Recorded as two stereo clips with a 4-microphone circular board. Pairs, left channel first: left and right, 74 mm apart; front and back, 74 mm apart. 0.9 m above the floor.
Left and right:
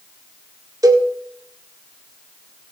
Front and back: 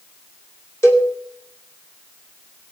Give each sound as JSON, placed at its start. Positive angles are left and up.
{"t": 0.8, "sound": "a cowbell", "azimuth_deg": -50, "distance_m": 2.0}